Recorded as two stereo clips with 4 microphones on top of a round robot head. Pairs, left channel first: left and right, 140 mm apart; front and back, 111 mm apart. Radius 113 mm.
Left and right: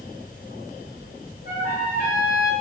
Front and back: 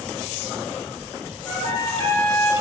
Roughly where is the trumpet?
Ahead left.